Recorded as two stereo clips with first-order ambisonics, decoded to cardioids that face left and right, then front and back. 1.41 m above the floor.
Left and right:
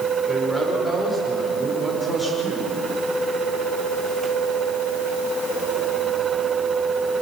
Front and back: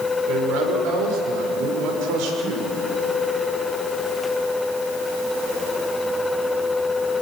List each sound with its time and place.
0.3 s a man speaking: 175° left, 5.5 m